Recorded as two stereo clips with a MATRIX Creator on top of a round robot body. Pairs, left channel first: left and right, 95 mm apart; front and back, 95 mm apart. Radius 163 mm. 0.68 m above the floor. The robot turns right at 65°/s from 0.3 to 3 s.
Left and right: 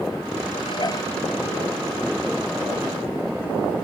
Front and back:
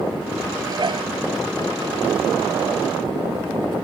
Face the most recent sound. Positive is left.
turn(degrees=-80)